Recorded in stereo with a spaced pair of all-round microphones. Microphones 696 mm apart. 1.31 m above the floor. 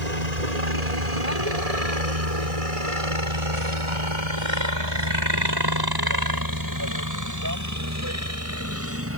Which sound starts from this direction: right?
A helicopter, at 0.0 s.